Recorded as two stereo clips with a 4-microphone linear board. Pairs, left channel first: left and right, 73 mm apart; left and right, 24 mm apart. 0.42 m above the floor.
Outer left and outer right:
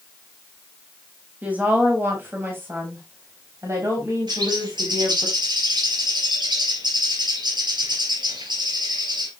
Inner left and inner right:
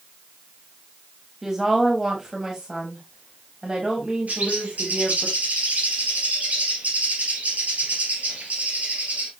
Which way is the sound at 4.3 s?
80° right.